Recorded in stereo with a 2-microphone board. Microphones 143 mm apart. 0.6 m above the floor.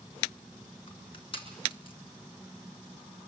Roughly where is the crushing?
Left.